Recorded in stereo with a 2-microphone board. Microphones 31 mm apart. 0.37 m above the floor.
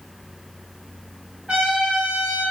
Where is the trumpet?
35° right (ahead or behind), 1.3 m.